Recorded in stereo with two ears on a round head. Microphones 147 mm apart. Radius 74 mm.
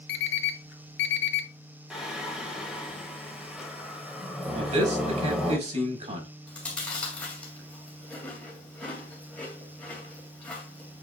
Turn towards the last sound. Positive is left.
turn(degrees=10)  # may be behind; listen again after turning